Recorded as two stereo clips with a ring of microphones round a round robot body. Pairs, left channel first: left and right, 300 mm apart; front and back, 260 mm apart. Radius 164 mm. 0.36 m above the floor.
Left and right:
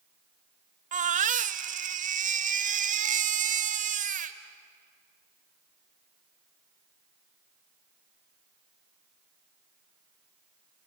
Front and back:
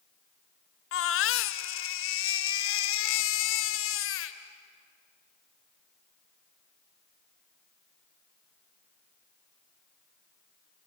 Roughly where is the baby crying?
Ahead right.